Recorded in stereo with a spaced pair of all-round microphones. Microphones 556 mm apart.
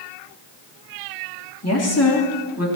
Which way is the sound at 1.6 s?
25° left (ahead or behind).